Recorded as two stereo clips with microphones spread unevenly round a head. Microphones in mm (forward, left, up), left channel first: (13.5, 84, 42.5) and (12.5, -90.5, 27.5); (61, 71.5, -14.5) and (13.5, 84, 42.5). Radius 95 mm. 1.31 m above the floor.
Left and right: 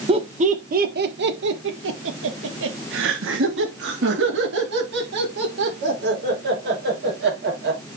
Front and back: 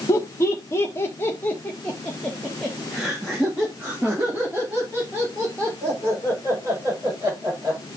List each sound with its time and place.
0.1 s laughter: 30° right, 1.3 m; by 7.8 s 125° right, 5.5 m